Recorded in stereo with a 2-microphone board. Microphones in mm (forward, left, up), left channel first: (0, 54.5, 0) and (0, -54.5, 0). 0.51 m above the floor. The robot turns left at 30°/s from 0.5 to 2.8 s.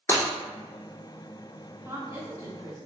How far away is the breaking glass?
About 1.0 m.